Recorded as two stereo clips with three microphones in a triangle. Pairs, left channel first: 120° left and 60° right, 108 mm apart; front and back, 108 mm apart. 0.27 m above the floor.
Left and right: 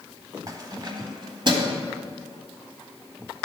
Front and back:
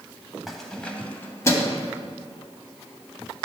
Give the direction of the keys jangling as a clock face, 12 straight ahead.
3 o'clock.